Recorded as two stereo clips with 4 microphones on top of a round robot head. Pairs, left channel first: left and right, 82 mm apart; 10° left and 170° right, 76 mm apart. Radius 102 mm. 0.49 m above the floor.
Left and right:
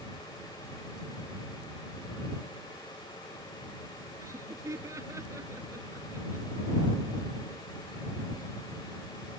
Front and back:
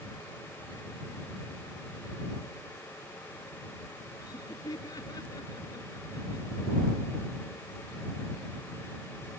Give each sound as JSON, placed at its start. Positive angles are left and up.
{"t": 4.2, "sound": "laughter", "azimuth_deg": -35}